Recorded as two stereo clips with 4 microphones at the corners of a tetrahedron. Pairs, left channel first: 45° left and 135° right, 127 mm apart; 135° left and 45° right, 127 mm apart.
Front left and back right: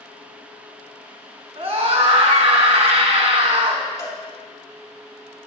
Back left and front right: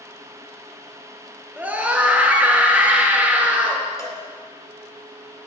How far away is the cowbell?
About 2 m.